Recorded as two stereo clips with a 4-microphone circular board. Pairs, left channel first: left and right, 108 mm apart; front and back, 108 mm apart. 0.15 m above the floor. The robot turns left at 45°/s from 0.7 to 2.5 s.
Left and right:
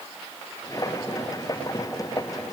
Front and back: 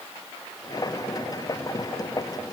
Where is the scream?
I don't hear a scream.